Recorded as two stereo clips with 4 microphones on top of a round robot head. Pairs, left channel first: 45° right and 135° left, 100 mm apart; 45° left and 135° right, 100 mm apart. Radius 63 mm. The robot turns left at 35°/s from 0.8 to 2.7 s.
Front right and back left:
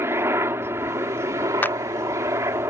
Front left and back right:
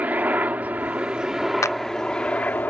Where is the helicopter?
170° left; by 2.7 s 100° left.